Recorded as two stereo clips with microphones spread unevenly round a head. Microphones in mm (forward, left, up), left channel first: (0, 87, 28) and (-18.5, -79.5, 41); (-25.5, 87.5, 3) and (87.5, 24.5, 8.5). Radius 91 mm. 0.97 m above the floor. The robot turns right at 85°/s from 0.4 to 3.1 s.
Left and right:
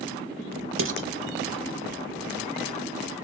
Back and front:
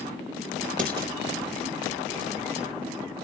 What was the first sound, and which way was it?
Dishes clattering, 85° right.